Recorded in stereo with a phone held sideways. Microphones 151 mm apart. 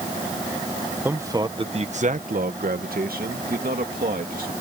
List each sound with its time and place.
1.1 s a man speaking: 15° right (ahead or behind); by 4.5 s 75° right (ahead or behind)